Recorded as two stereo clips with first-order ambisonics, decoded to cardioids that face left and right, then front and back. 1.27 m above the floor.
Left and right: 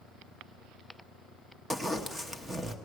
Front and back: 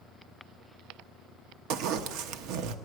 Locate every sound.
1.7 s a zipper: 175° right, 0.8 m